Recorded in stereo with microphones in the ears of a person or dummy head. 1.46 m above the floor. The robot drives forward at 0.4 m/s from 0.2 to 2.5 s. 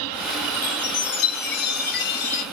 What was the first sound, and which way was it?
A chime, 55° left (ahead or behind).